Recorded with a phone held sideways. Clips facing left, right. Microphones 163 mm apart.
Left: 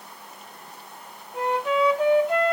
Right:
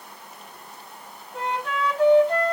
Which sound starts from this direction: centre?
A flute, at 1.3 s.